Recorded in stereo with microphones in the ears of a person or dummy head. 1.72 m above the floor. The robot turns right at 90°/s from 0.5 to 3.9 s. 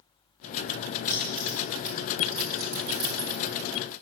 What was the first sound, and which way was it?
Keys jangling, 25° left (ahead or behind).